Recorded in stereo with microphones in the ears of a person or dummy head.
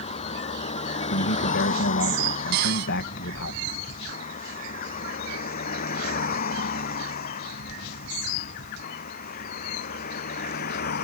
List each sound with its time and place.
0.0 s a vehicle: 30° left (ahead or behind); by 11.1 s 45° left (ahead or behind)
1.1 s a man speaking: 60° left (ahead or behind)
2.5 s a cupboard door: 55° right (ahead or behind)